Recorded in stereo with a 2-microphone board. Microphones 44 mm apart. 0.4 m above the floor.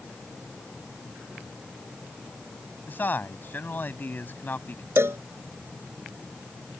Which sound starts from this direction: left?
A man speaking, at 2.9 s.